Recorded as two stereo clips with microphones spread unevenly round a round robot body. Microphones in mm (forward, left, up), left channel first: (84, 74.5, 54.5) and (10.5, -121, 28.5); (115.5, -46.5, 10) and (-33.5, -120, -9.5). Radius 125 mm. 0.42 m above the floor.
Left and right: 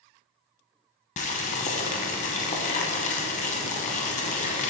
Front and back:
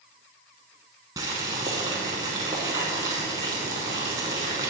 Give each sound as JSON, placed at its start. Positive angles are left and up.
{"t": 1.2, "sound": "boiling", "azimuth_deg": 130, "distance_m": 0.6}